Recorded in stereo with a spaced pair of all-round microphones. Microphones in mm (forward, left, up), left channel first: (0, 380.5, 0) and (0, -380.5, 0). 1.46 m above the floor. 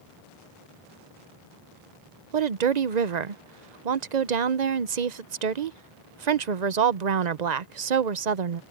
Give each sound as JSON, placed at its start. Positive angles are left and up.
{"t": 2.3, "sound": "a woman speaking", "side_deg": -65}